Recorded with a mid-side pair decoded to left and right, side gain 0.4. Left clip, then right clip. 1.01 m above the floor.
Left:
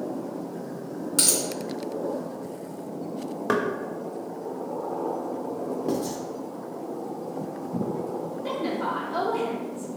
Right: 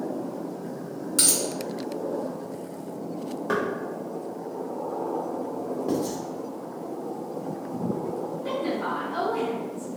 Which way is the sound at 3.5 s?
50° left.